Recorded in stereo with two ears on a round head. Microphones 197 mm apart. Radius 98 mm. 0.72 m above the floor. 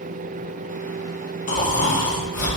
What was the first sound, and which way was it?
Snoring, 35° left (ahead or behind).